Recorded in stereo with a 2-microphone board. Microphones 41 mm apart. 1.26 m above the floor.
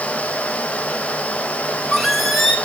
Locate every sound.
1.6 s a squeak: centre (ahead or behind), 3.5 m